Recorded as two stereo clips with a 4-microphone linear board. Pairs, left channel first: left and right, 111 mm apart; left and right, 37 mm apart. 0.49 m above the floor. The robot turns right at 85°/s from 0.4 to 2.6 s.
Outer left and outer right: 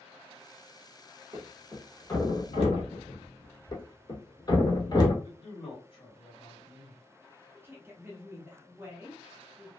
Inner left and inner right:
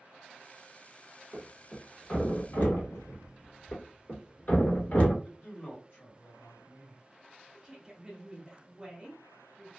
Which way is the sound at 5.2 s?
55° left (ahead or behind).